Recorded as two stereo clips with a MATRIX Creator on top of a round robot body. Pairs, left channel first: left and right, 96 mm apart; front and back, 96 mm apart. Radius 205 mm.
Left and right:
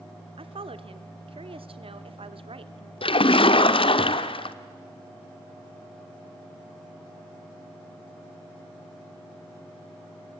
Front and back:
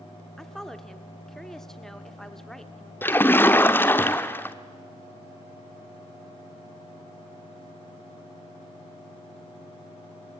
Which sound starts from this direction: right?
A woman speaking, at 0.4 s.